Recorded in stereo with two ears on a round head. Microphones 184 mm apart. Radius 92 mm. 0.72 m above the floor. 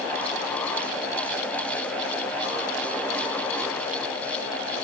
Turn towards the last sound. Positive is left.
No sound to turn to.